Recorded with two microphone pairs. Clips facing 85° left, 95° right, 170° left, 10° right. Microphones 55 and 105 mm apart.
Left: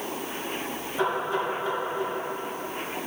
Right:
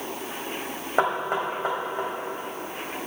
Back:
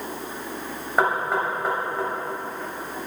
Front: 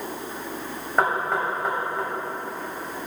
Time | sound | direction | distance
1.0 | knocking | 100° right | 2.5 m